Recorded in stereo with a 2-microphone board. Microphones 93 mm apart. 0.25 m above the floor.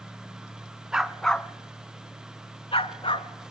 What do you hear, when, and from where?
0.9 s a dog barking: 5° right (ahead or behind), 0.8 m; by 3.3 s 80° left, 1.0 m